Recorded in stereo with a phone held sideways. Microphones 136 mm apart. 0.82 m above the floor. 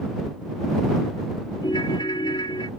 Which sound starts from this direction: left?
A ringtone, at 1.6 s.